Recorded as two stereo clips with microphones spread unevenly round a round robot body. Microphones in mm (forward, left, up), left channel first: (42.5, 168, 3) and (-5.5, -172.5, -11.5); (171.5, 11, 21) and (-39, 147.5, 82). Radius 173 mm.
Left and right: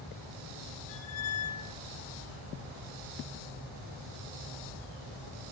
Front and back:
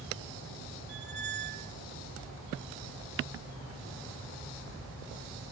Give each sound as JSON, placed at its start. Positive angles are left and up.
{"t": 0.9, "sound": "a squeak", "azimuth_deg": 120, "distance_m": 1.3}